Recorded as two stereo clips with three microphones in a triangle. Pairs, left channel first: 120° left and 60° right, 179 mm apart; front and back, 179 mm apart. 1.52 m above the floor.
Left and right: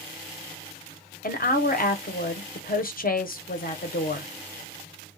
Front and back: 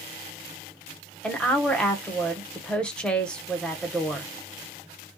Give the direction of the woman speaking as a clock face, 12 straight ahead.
9 o'clock.